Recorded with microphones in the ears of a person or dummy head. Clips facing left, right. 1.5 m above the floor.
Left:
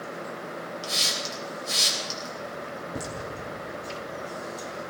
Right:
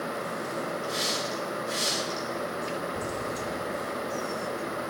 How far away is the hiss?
About 4 m.